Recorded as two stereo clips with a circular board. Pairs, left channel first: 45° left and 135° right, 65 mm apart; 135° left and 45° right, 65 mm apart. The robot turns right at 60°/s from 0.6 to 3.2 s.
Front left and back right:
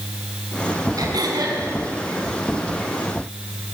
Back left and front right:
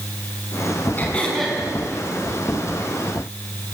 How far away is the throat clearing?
About 6 m.